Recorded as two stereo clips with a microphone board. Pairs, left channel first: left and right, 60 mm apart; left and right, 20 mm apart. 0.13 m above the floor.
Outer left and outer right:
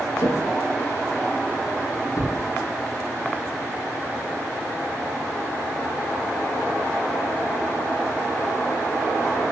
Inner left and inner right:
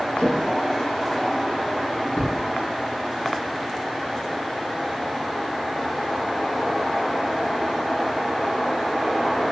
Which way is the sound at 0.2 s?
60° left (ahead or behind).